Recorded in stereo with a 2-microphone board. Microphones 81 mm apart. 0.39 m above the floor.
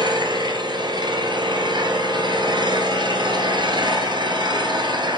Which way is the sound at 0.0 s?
70° right (ahead or behind).